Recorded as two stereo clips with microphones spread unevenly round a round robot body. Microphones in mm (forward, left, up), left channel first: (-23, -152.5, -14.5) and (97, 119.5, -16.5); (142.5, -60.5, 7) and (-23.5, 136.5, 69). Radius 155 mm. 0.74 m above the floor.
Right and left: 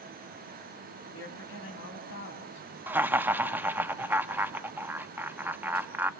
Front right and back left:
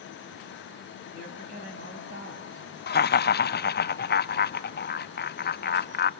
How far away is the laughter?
About 0.8 m.